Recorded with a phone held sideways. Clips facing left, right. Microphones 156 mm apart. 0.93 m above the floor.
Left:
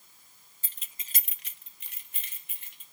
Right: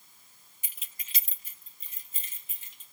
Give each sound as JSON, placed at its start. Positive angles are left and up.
{"t": 0.6, "sound": "keys jangling", "side_deg": -15, "distance_m": 0.9}